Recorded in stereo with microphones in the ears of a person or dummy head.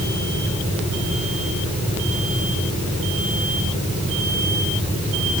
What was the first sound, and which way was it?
Only background noise.